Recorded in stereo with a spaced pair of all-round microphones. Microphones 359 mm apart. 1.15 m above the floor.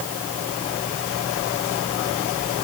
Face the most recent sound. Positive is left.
No sound to turn to.